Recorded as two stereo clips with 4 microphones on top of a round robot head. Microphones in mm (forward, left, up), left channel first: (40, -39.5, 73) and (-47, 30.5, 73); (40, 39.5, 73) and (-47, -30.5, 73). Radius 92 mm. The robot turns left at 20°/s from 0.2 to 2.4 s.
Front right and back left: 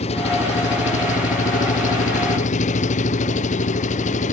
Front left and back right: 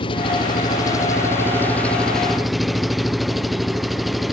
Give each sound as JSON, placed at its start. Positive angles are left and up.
{"t": 0.0, "sound": "an engine running", "azimuth_deg": -5}